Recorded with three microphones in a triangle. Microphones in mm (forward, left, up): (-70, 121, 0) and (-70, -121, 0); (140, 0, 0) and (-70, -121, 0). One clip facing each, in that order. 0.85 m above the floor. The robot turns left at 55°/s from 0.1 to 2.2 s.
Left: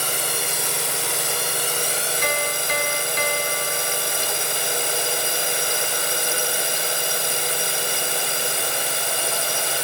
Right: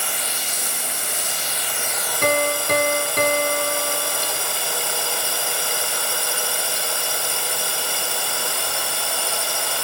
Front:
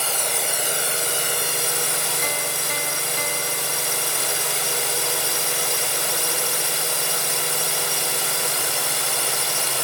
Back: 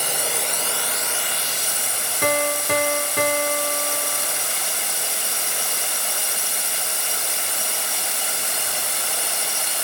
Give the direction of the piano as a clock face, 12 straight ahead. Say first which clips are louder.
Right 10 dB, back 7 dB; 4 o'clock.